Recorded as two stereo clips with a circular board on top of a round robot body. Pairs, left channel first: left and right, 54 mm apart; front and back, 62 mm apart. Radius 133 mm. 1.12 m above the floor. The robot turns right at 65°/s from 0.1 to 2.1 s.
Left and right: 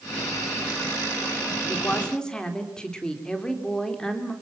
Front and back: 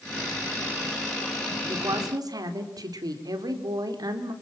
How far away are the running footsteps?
I don't hear running footsteps.